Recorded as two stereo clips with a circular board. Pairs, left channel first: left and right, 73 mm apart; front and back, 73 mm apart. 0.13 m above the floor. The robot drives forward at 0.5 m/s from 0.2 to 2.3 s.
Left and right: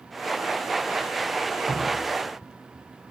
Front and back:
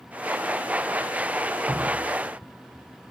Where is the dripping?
120° right, 0.7 m; by 2.2 s 140° right, 0.8 m.